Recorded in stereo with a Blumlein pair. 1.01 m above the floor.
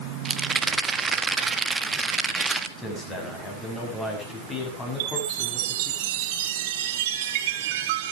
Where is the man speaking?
15° left, 7.5 m.